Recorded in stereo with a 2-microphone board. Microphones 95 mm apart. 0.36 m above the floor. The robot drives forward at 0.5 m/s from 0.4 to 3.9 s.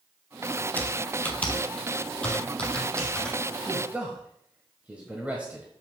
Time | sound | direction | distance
0.8 | typing on a keyboard | 20° left (ahead or behind) | 1.4 m
3.6 | a man speaking | 15° right (ahead or behind) | 1.4 m